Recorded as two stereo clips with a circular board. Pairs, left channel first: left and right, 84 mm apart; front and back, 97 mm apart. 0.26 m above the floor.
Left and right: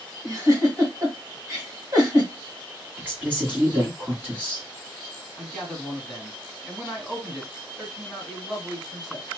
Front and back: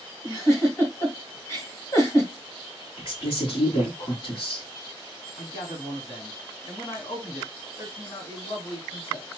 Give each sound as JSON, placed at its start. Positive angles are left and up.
{"t": 0.2, "sound": "a giggle", "azimuth_deg": -50, "distance_m": 2.0}
{"t": 3.0, "sound": "a woman speaking", "azimuth_deg": -20, "distance_m": 1.9}
{"t": 5.4, "sound": "a man speaking", "azimuth_deg": -10, "distance_m": 2.0}